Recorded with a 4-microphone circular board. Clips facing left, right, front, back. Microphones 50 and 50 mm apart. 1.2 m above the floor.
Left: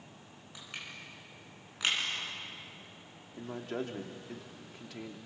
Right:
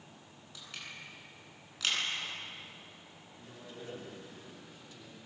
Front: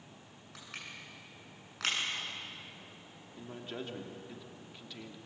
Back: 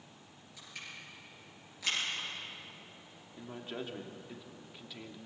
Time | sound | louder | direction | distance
0.6 | crushing | left 1 dB, front 1 dB | 20° left | 9 m
3.3 | a man speaking | left 12 dB, back 1 dB | 95° left | 2.5 m